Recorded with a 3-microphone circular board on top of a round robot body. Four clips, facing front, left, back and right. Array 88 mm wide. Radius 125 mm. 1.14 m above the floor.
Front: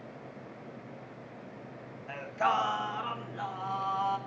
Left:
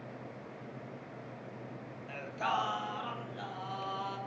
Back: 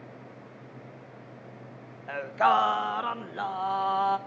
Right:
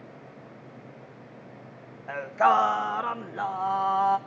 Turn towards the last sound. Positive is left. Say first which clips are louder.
# right 13 dB, back 6 dB
turn(degrees=-125)